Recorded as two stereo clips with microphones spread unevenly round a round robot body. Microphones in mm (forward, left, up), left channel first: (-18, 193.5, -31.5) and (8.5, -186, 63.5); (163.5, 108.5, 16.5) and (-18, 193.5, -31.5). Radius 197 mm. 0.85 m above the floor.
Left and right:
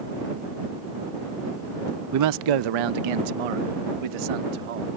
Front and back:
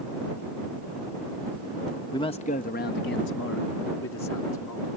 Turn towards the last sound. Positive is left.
turn(degrees=-75)